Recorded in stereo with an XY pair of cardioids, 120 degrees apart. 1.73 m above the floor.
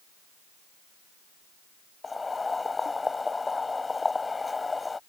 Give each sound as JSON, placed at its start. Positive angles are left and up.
{"t": 2.0, "sound": "boiling", "azimuth_deg": 20}